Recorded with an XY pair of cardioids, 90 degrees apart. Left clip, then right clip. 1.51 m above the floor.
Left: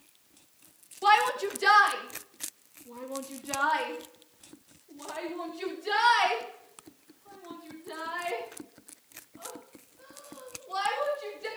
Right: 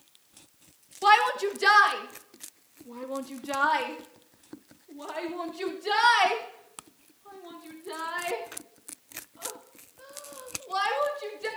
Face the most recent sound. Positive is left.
turn(degrees=-45)